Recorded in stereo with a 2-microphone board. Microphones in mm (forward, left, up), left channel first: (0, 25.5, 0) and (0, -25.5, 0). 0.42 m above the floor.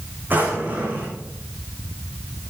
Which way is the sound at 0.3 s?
35° right (ahead or behind).